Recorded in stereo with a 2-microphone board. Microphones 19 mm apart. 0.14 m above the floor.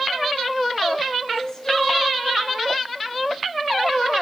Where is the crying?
20° left (ahead or behind), 1.3 m.